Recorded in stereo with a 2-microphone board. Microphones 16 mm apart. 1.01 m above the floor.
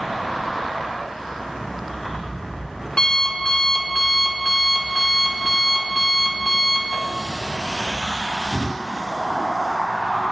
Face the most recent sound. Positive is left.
turn(degrees=45)  # may be behind; listen again after turning